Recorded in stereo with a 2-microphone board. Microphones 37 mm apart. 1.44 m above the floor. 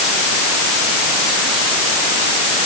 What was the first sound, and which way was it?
Only background noise.